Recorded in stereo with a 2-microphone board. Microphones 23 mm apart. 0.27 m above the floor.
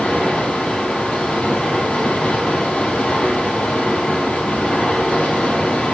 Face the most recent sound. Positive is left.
turn(degrees=60)  # may be behind; listen again after turning